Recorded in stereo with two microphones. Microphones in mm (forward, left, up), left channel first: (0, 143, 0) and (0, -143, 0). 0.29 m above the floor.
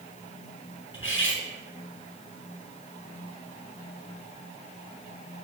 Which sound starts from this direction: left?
Cutlery clinking, at 0.9 s.